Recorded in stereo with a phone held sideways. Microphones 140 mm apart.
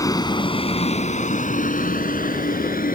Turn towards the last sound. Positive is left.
turn(degrees=85)